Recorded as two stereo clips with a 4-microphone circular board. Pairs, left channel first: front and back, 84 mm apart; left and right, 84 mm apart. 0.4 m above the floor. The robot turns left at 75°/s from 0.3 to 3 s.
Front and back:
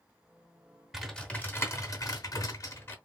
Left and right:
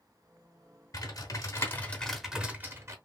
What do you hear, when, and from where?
0.9 s typing on a keyboard: 95° left, 0.9 m; by 3.0 s 55° right, 0.9 m